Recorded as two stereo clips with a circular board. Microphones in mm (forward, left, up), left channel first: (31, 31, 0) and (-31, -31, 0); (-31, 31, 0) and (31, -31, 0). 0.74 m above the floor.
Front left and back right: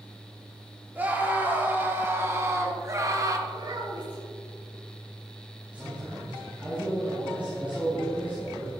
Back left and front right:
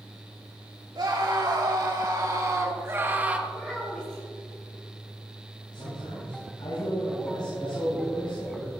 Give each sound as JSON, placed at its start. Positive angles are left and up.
{"t": 0.9, "sound": "a scream", "azimuth_deg": -70, "distance_m": 2.5}
{"t": 3.5, "sound": "a child speaking", "azimuth_deg": -145, "distance_m": 4.0}
{"t": 5.7, "sound": "a man speaking", "azimuth_deg": 150, "distance_m": 5.0}